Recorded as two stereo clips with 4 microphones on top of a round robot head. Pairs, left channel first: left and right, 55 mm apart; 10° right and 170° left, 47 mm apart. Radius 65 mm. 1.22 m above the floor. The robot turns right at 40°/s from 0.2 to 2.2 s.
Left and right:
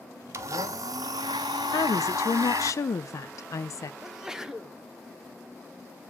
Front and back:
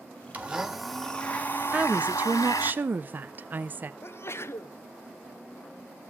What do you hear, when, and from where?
0.3 s a blender: 120° right, 0.8 m; by 2.7 s 45° right, 0.8 m
1.7 s a woman speaking: 100° left, 0.5 m; by 3.9 s 120° left, 0.5 m
4.0 s a sneeze: 10° right, 0.9 m